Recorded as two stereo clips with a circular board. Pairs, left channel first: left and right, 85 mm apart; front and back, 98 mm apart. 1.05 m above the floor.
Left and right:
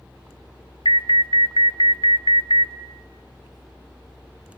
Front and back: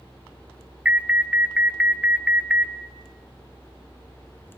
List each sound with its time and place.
0.8 s an alarm: 100° left, 0.9 m